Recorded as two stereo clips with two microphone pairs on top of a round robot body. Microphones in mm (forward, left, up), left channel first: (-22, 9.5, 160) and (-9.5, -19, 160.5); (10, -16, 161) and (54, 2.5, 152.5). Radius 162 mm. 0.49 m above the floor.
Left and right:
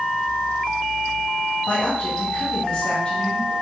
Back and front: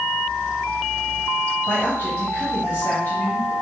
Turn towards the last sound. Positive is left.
turn(degrees=170)